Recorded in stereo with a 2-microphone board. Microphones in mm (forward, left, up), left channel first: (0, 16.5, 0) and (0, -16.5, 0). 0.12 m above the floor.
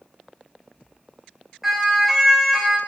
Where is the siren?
5° right (ahead or behind), 9.5 m.